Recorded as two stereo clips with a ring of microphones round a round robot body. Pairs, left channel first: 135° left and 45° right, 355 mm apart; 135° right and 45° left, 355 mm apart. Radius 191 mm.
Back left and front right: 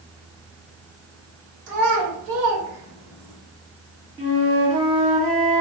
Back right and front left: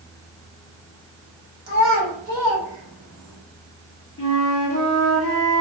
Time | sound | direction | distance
1.7 | a child speaking | 5° right | 1.7 m
4.2 | a flute | 110° right | 1.2 m